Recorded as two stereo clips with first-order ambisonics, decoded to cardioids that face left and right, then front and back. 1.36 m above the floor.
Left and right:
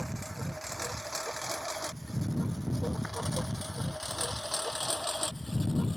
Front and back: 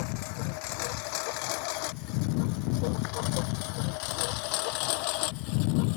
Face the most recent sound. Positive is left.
turn(degrees=5)